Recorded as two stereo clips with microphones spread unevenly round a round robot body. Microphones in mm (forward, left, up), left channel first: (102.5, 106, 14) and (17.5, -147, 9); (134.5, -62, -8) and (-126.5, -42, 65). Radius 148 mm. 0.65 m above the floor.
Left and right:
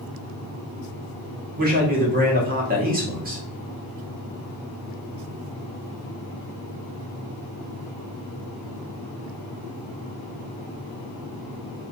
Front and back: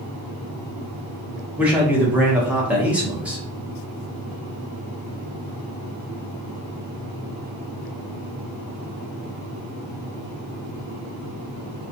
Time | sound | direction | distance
1.6 | a man speaking | 80° right | 1.3 m